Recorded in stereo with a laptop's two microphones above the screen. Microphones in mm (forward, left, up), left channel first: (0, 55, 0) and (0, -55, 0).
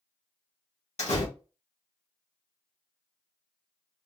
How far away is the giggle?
No giggle in this recording.